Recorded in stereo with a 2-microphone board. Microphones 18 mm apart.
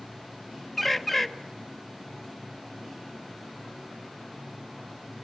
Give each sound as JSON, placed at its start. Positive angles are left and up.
{"t": 0.8, "sound": "a bird", "side_deg": 10, "distance_m": 1.1}